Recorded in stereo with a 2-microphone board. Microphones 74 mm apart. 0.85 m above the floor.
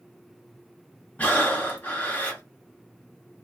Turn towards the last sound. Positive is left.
turn(degrees=20)  # may be behind; listen again after turning